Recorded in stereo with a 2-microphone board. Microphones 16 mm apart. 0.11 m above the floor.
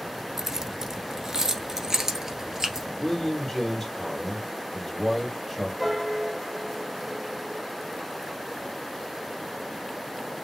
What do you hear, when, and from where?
0.4 s keys jangling: 30° right (ahead or behind), 1.0 m
3.0 s a man speaking: 25° left (ahead or behind), 3 m
5.8 s a piano: 5° right (ahead or behind), 2 m